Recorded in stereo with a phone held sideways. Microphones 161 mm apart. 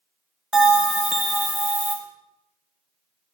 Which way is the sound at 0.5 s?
5° right (ahead or behind).